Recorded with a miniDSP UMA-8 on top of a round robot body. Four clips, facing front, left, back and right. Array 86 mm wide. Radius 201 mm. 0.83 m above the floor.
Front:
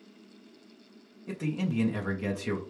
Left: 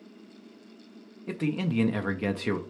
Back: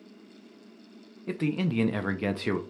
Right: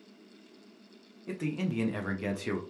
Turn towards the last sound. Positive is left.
turn(degrees=145)